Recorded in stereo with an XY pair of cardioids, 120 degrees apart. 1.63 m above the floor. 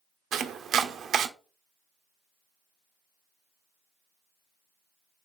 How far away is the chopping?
About 0.5 m.